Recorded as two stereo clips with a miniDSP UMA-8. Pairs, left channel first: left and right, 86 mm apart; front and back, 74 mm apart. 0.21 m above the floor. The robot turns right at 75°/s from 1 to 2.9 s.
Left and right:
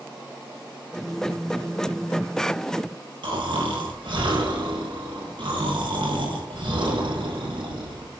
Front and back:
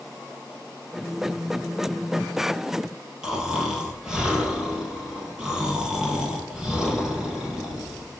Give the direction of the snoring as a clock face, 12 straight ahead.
3 o'clock.